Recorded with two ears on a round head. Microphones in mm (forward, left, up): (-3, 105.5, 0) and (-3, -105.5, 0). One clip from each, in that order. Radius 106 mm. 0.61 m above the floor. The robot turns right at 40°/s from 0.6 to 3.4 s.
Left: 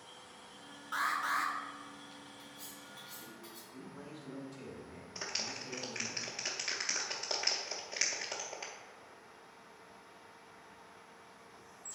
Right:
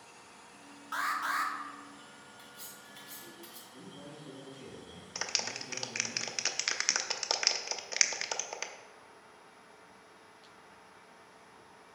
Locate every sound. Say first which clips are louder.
0.9 s an alarm: right 1 dB; 15° right (ahead or behind), 1.2 m; by 1.5 s 30° right (ahead or behind), 1.2 m
2.4 s cutlery clinking: right 1 dB; 110° right, 1.9 m; by 3.6 s 70° right, 1.9 m
3.7 s a man speaking: right 1 dB; 45° left (ahead or behind), 2.5 m
5.2 s a clap: right 4 dB; 45° right (ahead or behind), 0.6 m